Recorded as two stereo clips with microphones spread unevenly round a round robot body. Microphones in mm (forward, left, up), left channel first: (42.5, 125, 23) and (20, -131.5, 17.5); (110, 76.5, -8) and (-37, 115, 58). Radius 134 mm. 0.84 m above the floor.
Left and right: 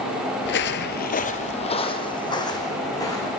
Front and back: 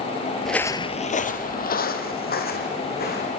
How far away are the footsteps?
About 1.0 m.